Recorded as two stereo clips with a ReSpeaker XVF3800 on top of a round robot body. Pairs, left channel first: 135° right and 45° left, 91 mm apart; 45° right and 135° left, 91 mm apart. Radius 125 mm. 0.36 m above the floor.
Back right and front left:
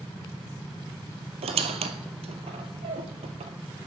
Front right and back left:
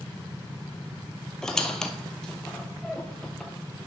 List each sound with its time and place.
1.4 s a squeak: 40° left, 1.0 m